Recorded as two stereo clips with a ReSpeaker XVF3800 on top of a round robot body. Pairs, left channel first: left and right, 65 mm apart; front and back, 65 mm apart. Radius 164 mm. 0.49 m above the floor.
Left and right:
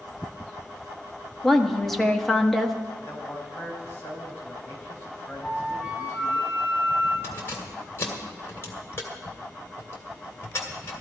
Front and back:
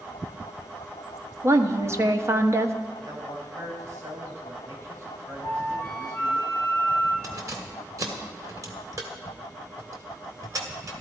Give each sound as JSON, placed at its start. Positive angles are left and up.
{"t": 1.4, "sound": "a woman speaking", "azimuth_deg": 175, "distance_m": 1.2}
{"t": 3.0, "sound": "a man speaking", "azimuth_deg": 150, "distance_m": 4.5}
{"t": 5.4, "sound": "a flute", "azimuth_deg": 165, "distance_m": 6.0}
{"t": 7.2, "sound": "keys jangling", "azimuth_deg": 145, "distance_m": 1.8}